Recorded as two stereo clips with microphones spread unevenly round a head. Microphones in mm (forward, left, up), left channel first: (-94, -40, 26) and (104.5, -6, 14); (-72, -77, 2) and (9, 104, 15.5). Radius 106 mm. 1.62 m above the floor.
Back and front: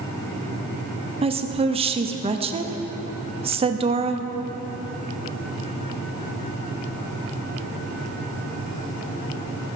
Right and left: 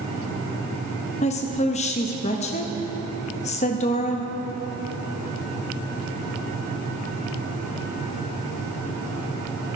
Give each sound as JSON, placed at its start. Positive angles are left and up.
{"t": 1.2, "sound": "a woman speaking", "azimuth_deg": -55, "distance_m": 0.8}